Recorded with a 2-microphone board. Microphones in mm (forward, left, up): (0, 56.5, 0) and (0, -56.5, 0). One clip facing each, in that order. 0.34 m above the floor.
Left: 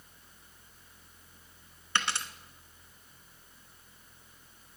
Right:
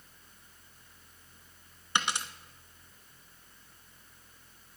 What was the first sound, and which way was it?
A dropped coin, 15° right (ahead or behind).